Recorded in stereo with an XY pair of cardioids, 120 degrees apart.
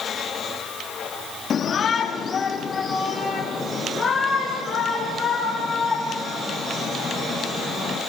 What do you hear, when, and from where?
1.5 s a shout: 50° left, 2 m; by 8.0 s 20° left, 9.5 m